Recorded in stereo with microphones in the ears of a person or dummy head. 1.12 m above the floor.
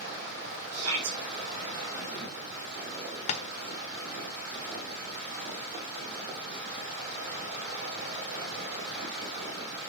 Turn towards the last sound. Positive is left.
turn(degrees=40)  # may be behind; listen again after turning